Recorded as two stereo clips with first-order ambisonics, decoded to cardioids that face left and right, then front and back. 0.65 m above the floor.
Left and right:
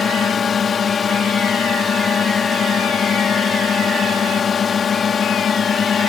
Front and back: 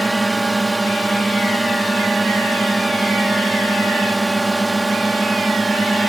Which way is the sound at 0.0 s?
105° left.